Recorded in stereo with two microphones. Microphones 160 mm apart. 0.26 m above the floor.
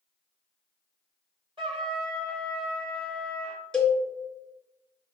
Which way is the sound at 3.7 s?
5° left (ahead or behind).